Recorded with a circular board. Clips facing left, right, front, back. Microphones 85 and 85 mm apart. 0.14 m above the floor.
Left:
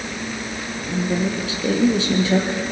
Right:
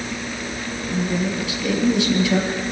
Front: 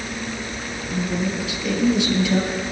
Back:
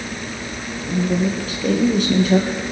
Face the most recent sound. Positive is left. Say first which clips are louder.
# left 1 dB, back 5 dB
turn(degrees=140)